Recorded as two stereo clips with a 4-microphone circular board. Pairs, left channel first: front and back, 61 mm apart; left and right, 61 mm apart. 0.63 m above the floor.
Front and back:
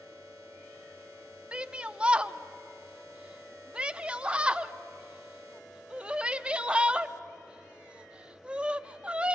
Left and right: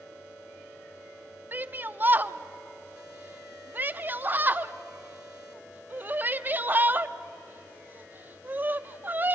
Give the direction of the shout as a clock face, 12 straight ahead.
4 o'clock.